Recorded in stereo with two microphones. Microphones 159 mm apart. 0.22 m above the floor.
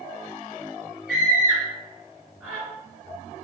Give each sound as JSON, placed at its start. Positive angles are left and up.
{"t": 1.1, "sound": "a scream", "side_deg": -5, "distance_m": 2.5}